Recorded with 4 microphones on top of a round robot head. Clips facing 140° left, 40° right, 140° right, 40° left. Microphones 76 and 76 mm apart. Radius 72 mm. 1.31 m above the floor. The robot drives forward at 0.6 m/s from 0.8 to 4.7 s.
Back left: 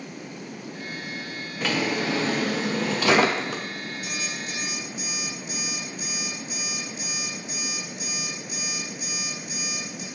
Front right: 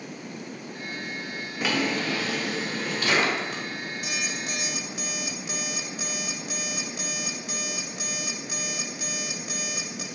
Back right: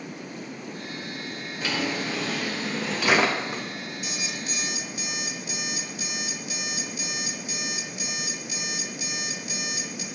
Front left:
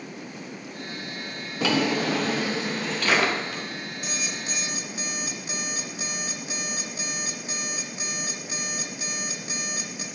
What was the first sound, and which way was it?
A drawer, 40° left.